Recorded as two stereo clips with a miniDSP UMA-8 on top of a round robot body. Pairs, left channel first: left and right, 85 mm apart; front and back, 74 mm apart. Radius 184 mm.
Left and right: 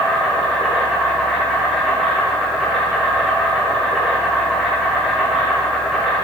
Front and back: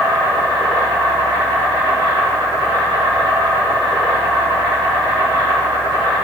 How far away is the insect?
About 2.5 m.